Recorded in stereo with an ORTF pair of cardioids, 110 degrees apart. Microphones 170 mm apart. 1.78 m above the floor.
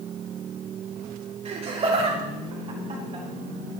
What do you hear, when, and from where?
1.4 s laughter: 40° right, 3.5 m; by 3.2 s 35° right, 4.5 m